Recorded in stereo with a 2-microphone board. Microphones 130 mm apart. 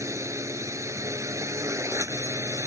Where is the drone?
25° right (ahead or behind).